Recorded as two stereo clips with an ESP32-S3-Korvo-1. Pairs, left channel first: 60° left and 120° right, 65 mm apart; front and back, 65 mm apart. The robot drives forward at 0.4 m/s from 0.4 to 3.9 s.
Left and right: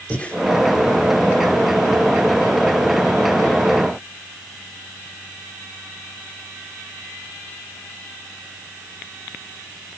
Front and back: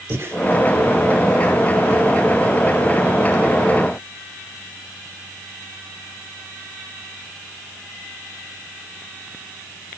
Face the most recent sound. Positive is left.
turn(degrees=150)